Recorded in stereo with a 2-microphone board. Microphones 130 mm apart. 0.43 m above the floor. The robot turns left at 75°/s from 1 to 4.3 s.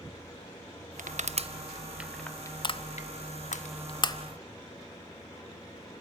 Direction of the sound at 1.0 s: 75° right (ahead or behind).